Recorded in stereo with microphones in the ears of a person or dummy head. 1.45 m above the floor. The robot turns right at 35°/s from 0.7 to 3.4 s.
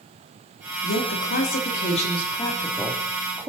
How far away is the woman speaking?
About 3.5 m.